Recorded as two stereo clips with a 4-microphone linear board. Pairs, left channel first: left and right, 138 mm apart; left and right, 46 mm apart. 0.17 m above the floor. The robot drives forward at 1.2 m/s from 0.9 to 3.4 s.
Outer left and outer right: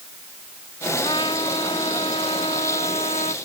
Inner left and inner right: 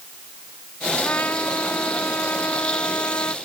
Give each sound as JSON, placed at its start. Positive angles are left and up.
{"t": 1.0, "sound": "a trumpet", "side_deg": 40}